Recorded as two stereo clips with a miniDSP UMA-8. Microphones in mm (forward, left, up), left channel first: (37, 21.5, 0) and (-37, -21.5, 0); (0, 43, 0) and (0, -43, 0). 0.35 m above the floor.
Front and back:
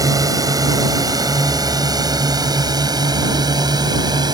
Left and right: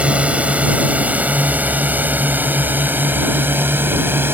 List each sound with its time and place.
0.0 s a drone: 160° right; by 4.3 s 150° right